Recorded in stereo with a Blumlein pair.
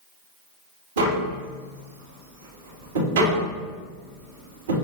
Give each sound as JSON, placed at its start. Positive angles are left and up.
{"t": 1.0, "sound": "tapping", "azimuth_deg": -60, "distance_m": 2.5}